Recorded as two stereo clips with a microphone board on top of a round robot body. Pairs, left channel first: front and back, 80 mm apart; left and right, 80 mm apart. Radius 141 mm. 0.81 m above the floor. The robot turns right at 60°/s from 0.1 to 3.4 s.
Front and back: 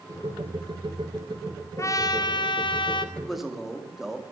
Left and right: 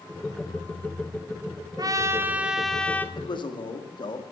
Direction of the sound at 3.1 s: 80° left.